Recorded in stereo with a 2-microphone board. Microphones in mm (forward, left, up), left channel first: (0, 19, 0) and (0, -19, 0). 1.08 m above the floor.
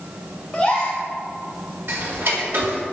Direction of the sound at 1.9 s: 60° right (ahead or behind).